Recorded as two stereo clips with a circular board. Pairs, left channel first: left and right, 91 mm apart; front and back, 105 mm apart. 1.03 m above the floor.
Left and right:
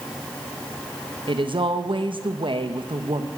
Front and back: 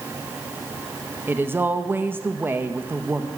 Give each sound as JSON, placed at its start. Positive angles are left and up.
{"t": 1.3, "sound": "a woman speaking", "azimuth_deg": -110, "distance_m": 0.8}